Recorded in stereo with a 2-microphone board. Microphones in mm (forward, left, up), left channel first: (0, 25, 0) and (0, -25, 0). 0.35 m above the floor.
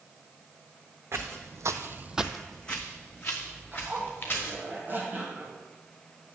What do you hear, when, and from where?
1.1 s footsteps: 55° right (ahead or behind), 1.4 m; by 4.5 s 35° left (ahead or behind), 4 m
3.7 s a zipper: 35° right (ahead or behind), 2.5 m